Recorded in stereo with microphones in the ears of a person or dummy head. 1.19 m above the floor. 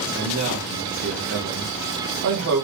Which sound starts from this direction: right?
A man speaking, at 0.1 s.